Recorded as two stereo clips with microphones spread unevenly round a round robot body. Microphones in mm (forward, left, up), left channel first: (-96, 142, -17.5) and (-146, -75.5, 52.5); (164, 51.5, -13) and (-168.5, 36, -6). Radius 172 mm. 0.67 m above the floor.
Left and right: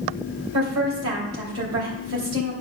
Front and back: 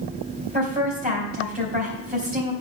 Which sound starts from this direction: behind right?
A woman speaking, at 0.5 s.